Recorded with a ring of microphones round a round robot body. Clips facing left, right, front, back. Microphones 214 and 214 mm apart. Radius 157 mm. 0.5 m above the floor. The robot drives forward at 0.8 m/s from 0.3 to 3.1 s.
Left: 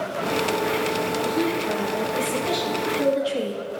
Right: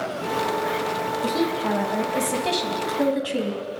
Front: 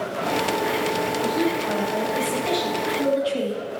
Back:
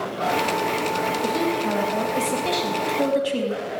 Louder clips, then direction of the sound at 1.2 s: Right 2 dB, even; 115° right.